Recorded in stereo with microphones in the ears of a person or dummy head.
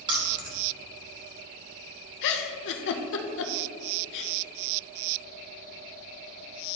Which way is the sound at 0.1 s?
20° right (ahead or behind).